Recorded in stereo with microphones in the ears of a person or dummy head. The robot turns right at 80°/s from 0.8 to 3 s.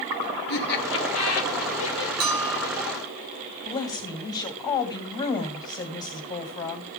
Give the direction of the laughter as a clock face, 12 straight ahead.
10 o'clock.